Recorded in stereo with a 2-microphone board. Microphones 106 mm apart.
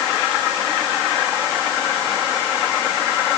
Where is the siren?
I don't hear a siren.